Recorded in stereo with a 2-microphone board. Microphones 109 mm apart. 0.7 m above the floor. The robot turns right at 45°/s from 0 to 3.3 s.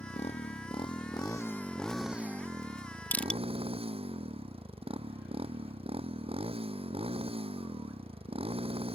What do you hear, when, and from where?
0.0 s a motorcycle: 90° left; by 9.0 s 120° right
3.1 s crushing: 15° left (ahead or behind); by 3.4 s 10° left (ahead or behind)